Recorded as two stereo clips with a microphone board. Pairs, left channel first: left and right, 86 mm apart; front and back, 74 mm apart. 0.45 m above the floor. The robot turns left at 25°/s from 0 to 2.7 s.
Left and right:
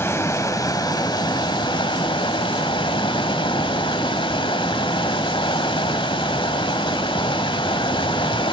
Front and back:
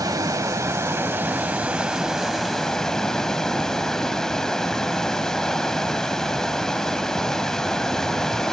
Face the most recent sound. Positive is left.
turn(degrees=85)